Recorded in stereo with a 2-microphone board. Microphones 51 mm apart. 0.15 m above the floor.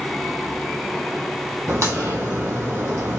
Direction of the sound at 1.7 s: 70° right (ahead or behind).